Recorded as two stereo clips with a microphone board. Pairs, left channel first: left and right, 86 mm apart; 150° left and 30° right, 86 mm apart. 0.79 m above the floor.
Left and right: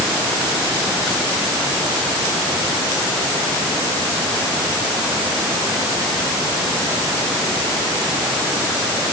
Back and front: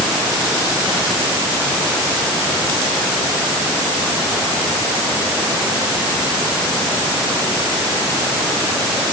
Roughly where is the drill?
No drill in this recording.